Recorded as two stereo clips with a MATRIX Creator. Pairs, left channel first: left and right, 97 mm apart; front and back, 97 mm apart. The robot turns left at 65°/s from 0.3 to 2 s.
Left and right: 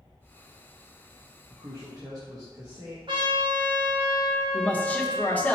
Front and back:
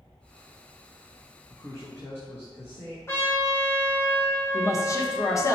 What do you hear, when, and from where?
1.5 s a man speaking: 25° right, 1.0 m; by 3.0 s 55° right, 1.0 m
3.1 s a trumpet: 60° right, 1.3 m
4.5 s a man speaking: 30° left, 0.7 m